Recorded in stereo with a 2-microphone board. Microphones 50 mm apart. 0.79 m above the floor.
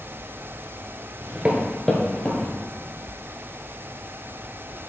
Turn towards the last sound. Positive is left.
turn(degrees=40)  # may be behind; listen again after turning